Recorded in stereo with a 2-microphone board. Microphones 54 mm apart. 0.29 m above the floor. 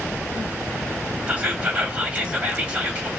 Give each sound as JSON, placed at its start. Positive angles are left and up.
{"t": 1.3, "sound": "whispering", "side_deg": -25, "distance_m": 1.2}